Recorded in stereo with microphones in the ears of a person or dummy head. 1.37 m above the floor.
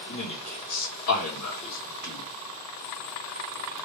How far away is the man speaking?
About 1.6 m.